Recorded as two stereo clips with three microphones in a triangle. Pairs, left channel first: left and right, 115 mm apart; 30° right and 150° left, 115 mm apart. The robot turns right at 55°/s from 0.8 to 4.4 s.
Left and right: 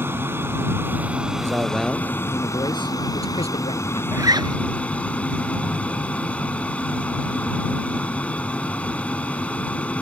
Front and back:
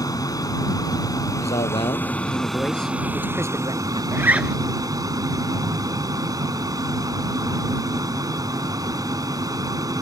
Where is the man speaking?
25° right; by 4.0 s 120° left.